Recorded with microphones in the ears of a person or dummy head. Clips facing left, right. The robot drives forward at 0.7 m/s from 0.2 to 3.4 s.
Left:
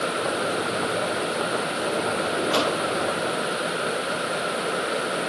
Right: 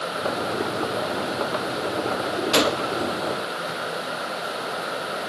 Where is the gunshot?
25° right (ahead or behind); by 3.0 s 20° right (ahead or behind).